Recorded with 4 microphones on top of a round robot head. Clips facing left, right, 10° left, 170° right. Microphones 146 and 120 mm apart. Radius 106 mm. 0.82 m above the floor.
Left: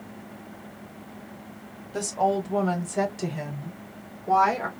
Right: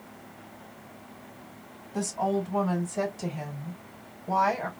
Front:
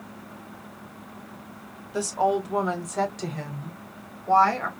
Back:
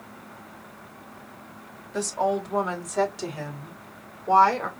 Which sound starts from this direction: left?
A woman speaking, at 1.9 s.